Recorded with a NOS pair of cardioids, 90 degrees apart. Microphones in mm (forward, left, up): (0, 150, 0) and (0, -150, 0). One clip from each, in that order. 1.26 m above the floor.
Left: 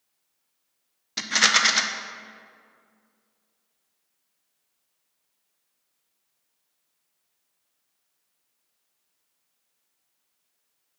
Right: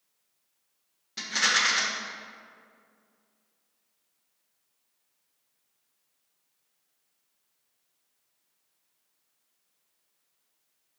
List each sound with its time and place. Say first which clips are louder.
1.2 s a rattle: left 5 dB; 45° left, 0.6 m